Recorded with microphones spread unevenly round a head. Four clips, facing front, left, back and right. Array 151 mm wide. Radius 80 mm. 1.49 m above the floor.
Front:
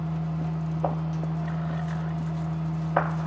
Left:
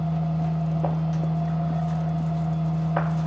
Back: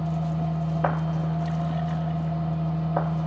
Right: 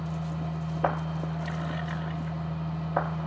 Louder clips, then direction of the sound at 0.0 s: Left 7 dB, back 3 dB; 150° left.